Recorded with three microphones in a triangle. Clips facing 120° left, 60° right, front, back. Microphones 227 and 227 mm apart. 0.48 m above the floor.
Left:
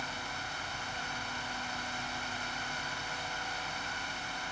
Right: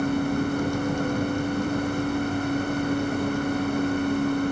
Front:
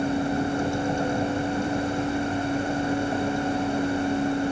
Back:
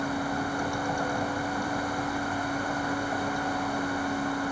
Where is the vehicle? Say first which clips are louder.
Right 22 dB, front 6 dB; 65° right.